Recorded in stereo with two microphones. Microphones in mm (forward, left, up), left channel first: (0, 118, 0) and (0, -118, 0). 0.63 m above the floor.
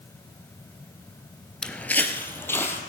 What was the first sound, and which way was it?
Footsteps, 5° left (ahead or behind).